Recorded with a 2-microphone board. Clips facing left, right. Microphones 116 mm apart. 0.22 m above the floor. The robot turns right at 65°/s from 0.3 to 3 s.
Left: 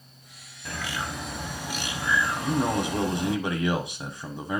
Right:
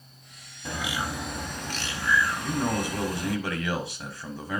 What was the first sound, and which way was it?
A bird, 20° right (ahead or behind).